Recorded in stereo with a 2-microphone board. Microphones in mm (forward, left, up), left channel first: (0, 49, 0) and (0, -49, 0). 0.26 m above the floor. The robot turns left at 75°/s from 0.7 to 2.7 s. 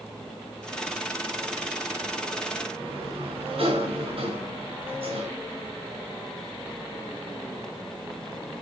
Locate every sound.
2.8 s a sliding door: 65° right (ahead or behind), 4.5 m